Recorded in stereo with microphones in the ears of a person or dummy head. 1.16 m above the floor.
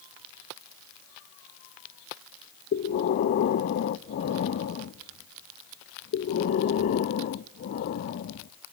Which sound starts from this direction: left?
Breathing, at 2.7 s.